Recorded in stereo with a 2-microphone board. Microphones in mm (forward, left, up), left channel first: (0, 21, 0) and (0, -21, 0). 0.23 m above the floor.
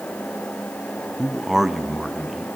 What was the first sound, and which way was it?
A man speaking, 5° right (ahead or behind).